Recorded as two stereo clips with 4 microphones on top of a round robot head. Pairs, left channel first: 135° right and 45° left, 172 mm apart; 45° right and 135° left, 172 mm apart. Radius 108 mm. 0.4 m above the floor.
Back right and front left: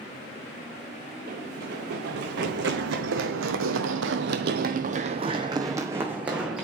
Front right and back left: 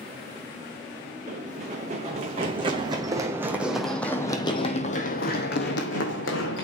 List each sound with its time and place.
1.3 s running footsteps: 85° left, 2 m; by 6.7 s 40° right, 1.5 m